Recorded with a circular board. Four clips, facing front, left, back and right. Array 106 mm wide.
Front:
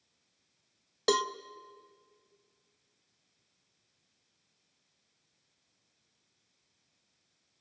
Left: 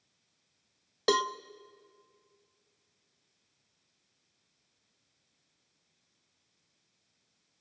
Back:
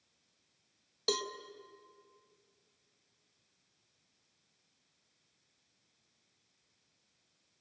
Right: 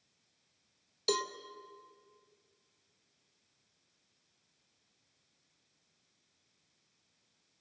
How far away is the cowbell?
About 0.5 m.